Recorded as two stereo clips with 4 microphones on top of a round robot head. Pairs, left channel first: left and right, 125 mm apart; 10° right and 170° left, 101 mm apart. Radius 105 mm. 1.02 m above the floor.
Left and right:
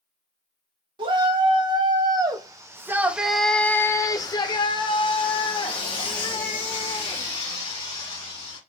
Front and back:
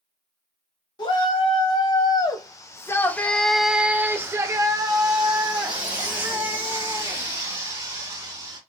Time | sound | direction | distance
1.0 | a shout | 45° right | 1.4 m